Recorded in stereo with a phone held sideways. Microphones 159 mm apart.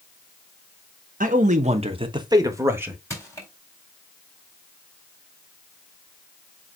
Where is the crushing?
20° left (ahead or behind), 4 m.